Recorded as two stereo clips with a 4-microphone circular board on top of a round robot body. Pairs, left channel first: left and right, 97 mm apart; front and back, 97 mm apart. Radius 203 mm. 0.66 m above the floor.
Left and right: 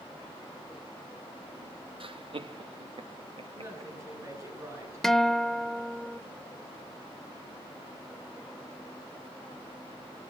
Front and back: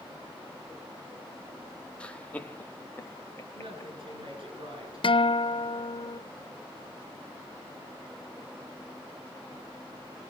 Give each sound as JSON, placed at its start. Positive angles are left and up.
{"t": 2.0, "sound": "laughter", "azimuth_deg": -80, "distance_m": 1.8}
{"t": 3.5, "sound": "a woman speaking", "azimuth_deg": -150, "distance_m": 9.5}
{"t": 5.0, "sound": "a guitar", "azimuth_deg": 5, "distance_m": 1.0}